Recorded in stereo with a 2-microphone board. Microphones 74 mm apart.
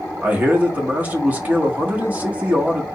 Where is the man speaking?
25° right (ahead or behind), 1.0 m.